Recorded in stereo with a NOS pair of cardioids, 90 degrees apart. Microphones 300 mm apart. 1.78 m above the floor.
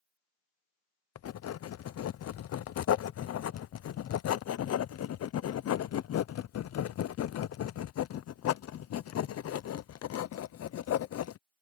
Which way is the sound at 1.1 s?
55° left.